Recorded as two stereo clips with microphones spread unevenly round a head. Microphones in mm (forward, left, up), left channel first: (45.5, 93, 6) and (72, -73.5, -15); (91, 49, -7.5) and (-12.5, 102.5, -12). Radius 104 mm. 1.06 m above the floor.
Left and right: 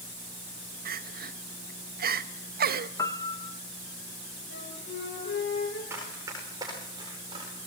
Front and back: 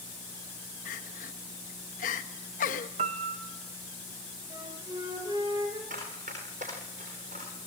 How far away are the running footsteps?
About 9.5 m.